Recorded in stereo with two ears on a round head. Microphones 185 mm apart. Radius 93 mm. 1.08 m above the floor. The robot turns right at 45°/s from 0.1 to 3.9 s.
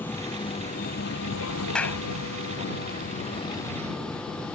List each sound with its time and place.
0.0 s a vehicle: 10° left (ahead or behind); by 4.5 s 5° left (ahead or behind)
1.8 s a clap: 5° left (ahead or behind); by 2.0 s 15° left (ahead or behind)